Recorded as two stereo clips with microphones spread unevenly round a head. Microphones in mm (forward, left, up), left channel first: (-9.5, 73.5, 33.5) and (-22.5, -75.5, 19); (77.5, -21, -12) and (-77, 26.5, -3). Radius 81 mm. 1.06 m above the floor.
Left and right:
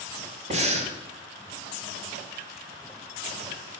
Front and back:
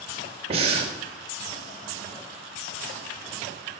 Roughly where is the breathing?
Behind right.